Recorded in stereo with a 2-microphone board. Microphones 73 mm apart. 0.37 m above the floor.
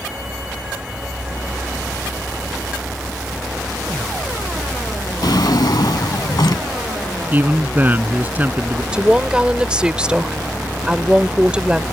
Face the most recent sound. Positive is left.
turn(degrees=-15)  # may be behind; listen again after turning